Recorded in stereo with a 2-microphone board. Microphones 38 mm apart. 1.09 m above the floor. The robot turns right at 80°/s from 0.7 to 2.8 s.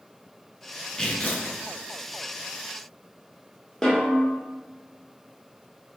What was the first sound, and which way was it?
Tearing paper, 15° left.